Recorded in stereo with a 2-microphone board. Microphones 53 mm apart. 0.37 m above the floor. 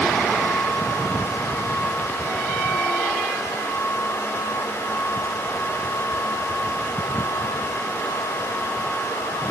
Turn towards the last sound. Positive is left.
No sound to turn to.